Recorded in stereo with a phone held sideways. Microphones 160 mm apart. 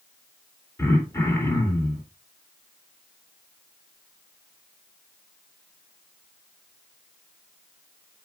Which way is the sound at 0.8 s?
15° left (ahead or behind).